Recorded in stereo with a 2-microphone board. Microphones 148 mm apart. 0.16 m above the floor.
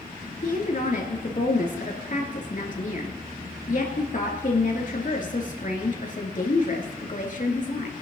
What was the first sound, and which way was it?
A woman speaking, 55° left (ahead or behind).